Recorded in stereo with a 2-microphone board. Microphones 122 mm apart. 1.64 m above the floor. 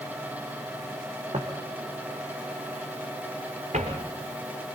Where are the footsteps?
55° right (ahead or behind), 3 m; by 4.0 s 75° right (ahead or behind), 6 m.